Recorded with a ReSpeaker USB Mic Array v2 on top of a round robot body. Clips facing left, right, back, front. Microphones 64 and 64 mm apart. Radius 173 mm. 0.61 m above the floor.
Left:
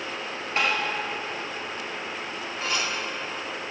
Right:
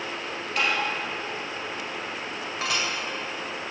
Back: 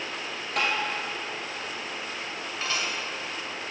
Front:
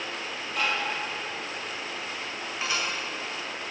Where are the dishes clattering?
75° right, 2 m.